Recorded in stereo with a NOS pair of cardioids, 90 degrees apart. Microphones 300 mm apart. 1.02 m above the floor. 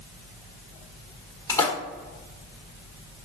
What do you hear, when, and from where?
1.5 s a splash: 10° left, 1.6 m